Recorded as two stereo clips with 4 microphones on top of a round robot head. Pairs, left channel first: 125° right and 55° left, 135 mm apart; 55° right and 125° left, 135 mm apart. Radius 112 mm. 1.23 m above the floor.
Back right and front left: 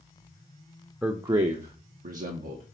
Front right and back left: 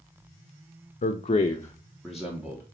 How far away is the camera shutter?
I don't hear a camera shutter.